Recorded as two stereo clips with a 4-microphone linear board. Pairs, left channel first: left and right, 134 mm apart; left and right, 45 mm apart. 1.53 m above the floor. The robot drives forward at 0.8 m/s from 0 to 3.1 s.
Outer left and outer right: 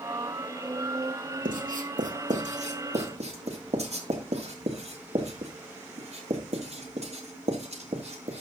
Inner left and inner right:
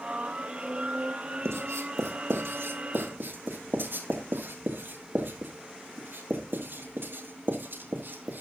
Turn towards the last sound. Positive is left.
turn(degrees=-55)  # may be behind; listen again after turning